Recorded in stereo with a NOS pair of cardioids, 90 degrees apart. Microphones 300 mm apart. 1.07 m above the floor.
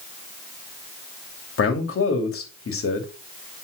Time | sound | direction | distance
1.6 | a man speaking | 50° left | 3 m